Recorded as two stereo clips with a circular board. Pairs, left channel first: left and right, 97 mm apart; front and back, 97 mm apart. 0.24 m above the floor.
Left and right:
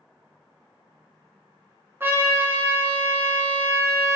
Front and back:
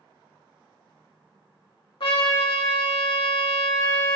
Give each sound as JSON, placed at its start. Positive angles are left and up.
{"t": 2.0, "sound": "a trumpet", "azimuth_deg": -25, "distance_m": 0.6}